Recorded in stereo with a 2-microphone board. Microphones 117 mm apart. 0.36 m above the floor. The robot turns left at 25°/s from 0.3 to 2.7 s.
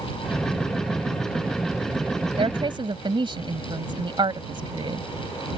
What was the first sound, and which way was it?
A woman speaking, 50° right (ahead or behind).